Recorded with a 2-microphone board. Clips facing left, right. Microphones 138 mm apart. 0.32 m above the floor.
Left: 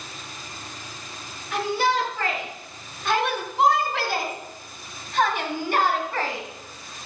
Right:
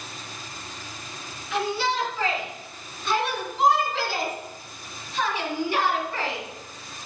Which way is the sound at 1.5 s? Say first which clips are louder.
Left 3 dB; 50° left (ahead or behind).